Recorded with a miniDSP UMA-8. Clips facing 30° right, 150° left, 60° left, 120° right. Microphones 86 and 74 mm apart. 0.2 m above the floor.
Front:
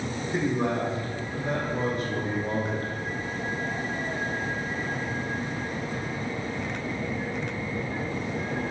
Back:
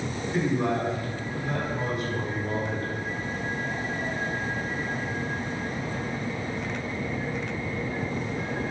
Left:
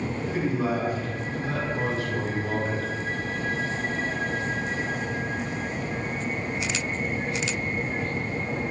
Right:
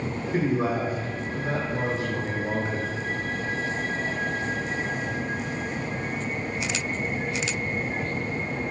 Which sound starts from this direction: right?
A man speaking, at 0.3 s.